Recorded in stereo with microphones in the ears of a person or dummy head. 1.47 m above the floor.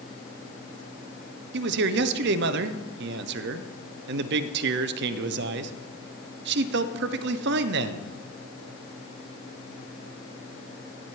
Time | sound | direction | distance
1.5 | a man speaking | 65° right (ahead or behind) | 0.8 m